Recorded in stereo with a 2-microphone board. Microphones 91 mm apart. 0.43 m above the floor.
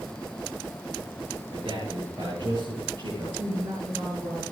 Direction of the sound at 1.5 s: 65° right (ahead or behind).